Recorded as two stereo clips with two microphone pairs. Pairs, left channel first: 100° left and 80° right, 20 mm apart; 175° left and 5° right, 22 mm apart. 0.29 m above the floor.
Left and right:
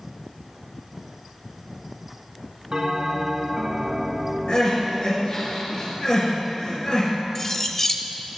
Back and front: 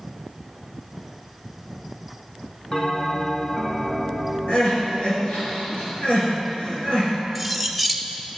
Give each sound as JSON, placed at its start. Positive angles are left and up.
{"t": 2.7, "sound": "a bell", "azimuth_deg": -130, "distance_m": 1.1}
{"t": 4.5, "sound": "crying", "azimuth_deg": 145, "distance_m": 3.0}
{"t": 7.3, "sound": "cutlery clinking", "azimuth_deg": 70, "distance_m": 0.5}